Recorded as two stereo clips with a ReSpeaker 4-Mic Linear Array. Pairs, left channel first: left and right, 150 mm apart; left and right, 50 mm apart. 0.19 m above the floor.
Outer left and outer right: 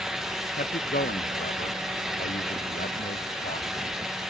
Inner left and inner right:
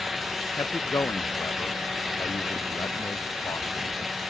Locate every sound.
0.6 s a man speaking: 75° left (ahead or behind)